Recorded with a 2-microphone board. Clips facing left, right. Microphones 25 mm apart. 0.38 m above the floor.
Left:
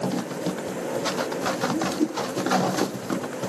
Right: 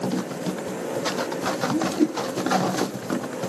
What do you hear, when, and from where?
1.7 s a whoosh: 60° right (ahead or behind), 2 m